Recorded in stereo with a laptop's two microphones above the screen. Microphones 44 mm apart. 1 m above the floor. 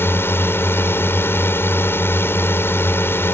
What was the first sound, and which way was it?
A drone, 55° left (ahead or behind).